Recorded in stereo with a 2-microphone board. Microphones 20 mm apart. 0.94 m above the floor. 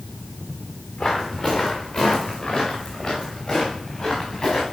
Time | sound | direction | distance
1.0 | footsteps | 55° left (ahead or behind) | 3.5 m